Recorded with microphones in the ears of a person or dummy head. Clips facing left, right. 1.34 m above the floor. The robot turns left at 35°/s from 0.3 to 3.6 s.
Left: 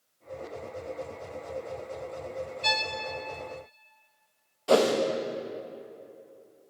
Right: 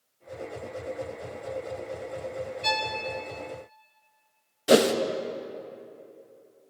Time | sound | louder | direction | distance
2.6 | a violin | right 3 dB | centre (ahead or behind) | 0.5 m
4.7 | a whoosh | right 2 dB | 30° right (ahead or behind) | 0.7 m